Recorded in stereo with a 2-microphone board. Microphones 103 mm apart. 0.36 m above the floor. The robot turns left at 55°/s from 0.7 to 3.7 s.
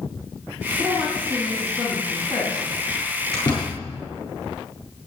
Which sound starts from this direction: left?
A door slam, at 3.3 s.